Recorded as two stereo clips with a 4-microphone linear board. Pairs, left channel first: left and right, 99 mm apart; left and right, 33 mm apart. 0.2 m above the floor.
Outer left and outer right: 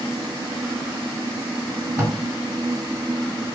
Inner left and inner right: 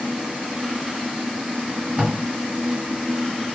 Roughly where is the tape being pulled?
Centre.